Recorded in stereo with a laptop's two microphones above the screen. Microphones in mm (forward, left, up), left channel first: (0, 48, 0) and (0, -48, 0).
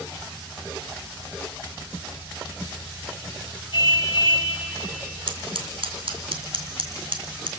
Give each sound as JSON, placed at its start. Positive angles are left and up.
{"t": 3.7, "sound": "a car horn", "side_deg": 45, "distance_m": 6.0}
{"t": 5.3, "sound": "scissors", "side_deg": -80, "distance_m": 3.0}